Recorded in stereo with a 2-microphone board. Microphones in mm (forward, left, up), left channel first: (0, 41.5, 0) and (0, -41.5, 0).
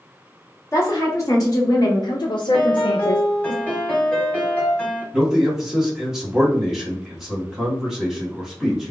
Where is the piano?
15° left (ahead or behind), 1.6 m.